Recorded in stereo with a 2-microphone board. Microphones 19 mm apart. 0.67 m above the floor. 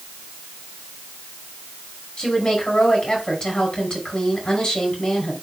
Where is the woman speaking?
45° left (ahead or behind), 6 m.